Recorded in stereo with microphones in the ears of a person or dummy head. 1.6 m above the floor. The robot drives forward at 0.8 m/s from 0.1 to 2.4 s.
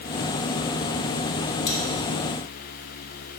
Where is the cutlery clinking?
60° left (ahead or behind), 2.5 m; by 1.8 s 65° left (ahead or behind), 2.5 m.